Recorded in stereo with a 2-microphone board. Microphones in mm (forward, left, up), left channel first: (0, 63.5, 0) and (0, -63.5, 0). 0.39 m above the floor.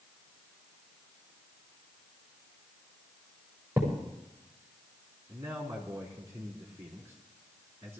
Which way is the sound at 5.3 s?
20° right (ahead or behind).